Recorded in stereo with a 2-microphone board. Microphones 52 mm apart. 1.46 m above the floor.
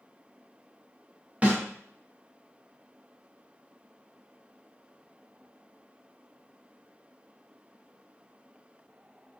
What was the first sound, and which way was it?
A snare drum, 25° right (ahead or behind).